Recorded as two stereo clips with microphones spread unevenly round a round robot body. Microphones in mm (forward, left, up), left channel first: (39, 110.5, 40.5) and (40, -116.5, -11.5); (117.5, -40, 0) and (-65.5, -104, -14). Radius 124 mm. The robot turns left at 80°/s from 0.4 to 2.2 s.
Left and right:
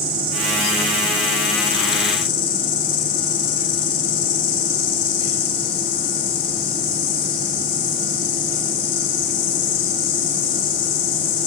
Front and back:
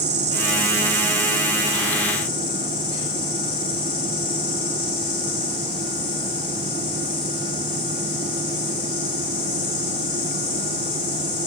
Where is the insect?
125° right, 8.5 m; by 11.5 s 90° left, 8.5 m.